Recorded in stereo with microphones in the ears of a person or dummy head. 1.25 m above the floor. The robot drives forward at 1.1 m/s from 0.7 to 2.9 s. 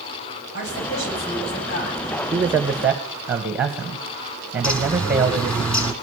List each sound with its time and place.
0.5 s a woman speaking: 65° left (ahead or behind), 9 m; by 2.1 s 55° left (ahead or behind), 10 m
2.3 s a man speaking: 10° right (ahead or behind), 0.6 m; by 5.6 s 5° right (ahead or behind), 1.2 m
4.6 s a bird: 5° left (ahead or behind), 1.3 m